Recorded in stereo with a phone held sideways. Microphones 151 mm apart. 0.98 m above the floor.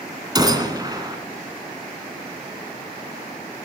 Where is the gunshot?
25° right (ahead or behind), 1.8 m.